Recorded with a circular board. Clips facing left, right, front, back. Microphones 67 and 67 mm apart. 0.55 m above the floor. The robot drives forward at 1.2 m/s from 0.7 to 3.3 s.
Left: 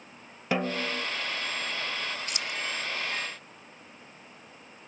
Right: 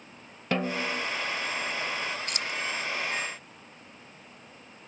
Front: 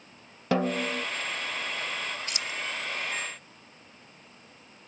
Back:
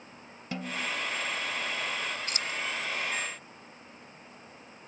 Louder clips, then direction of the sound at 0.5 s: Even, front 8 dB; 5° left.